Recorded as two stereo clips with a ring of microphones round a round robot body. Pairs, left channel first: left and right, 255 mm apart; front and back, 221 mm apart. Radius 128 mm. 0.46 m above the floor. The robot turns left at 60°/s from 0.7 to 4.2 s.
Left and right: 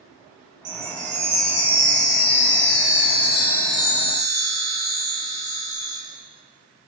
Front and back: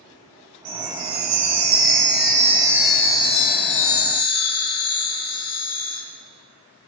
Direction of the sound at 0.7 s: 140° right.